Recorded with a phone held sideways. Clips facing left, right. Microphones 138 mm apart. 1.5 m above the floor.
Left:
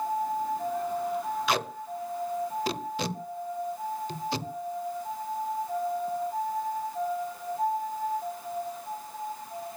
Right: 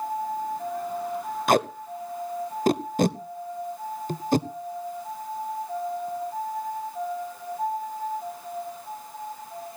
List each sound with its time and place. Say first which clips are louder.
1.5 s tape being pulled: right 7 dB; 50° right (ahead or behind), 0.7 m